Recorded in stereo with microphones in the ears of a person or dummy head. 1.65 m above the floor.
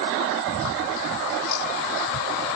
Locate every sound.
Only background noise.